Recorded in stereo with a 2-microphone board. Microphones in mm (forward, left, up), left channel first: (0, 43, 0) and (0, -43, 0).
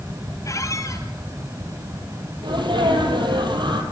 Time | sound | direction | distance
0.5 | a squeak | 35° left (ahead or behind) | 1.7 m
2.4 | a sneeze | 65° right (ahead or behind) | 4.5 m